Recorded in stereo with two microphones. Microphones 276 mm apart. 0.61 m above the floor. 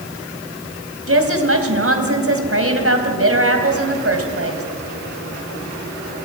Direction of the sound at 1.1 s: 50° right (ahead or behind).